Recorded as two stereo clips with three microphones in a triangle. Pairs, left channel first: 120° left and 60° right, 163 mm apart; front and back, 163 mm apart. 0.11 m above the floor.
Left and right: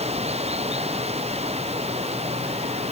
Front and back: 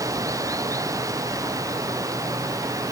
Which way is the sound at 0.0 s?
110° right.